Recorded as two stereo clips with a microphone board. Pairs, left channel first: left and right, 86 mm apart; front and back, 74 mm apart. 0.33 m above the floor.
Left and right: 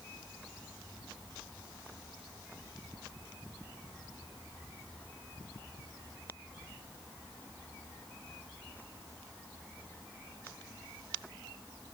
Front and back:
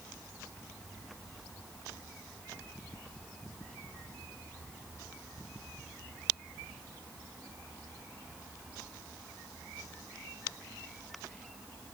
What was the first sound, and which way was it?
Only background noise.